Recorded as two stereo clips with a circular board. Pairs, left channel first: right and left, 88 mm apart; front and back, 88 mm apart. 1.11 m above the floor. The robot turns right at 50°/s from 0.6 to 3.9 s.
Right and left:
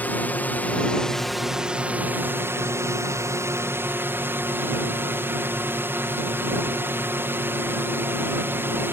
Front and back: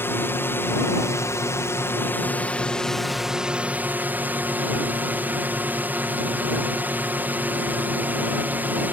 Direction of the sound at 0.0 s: 35° right.